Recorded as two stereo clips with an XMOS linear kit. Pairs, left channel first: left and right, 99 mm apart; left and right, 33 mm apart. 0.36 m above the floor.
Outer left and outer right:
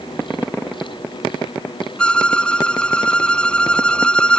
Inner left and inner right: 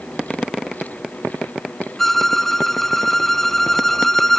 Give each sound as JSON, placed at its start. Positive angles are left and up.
{"t": 2.0, "sound": "a violin", "side_deg": 10}